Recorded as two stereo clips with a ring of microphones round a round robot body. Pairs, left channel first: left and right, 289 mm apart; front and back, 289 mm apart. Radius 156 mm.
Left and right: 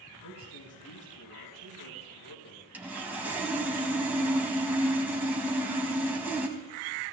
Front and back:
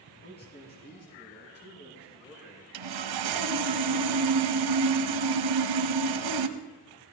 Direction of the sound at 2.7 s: 175° right.